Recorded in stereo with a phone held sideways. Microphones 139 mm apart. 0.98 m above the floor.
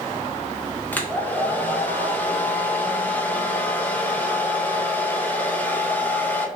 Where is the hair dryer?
15° left (ahead or behind), 0.5 m.